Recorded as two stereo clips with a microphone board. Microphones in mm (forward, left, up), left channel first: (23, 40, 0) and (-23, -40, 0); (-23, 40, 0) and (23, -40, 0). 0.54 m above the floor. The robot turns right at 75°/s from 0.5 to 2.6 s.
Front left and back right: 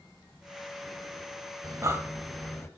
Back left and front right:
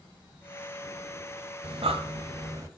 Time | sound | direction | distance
1.6 | breathing | 75° right | 1.2 m